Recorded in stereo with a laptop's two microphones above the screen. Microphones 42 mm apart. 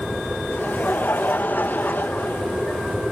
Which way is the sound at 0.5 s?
55° left (ahead or behind).